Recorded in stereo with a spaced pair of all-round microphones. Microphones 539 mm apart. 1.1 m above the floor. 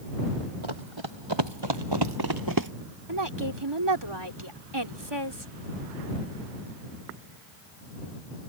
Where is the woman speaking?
45° right (ahead or behind).